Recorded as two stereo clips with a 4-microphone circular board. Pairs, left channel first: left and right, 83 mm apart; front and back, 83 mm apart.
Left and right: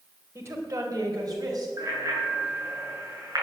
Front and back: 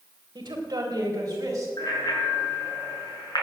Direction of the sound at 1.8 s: 40° right.